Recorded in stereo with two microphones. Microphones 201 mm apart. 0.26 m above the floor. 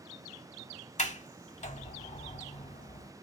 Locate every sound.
1.0 s a sliding door: 35° left (ahead or behind), 0.6 m